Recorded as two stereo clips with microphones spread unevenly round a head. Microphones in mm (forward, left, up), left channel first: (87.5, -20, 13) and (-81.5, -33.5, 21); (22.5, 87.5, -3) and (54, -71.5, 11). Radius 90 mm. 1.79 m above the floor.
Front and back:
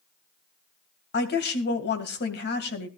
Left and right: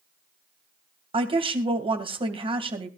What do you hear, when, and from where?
1.1 s a woman speaking: 20° right, 2.5 m